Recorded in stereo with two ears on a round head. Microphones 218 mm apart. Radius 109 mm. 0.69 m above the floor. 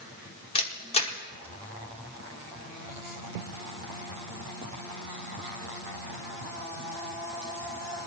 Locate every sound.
0.6 s a camera shutter: 25° left (ahead or behind), 1.2 m